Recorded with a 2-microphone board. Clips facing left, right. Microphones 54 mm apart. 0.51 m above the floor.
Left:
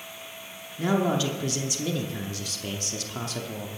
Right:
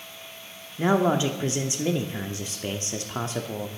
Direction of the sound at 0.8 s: 30° right (ahead or behind).